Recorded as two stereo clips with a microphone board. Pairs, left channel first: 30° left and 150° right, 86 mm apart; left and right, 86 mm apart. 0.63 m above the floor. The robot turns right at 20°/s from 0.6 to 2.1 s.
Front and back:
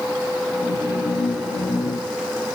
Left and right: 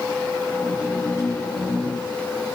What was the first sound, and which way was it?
Only background noise.